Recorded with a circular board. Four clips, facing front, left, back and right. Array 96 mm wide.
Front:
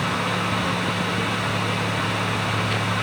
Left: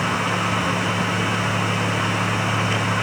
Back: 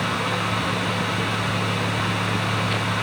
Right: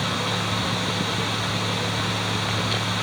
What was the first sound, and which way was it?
Only background noise.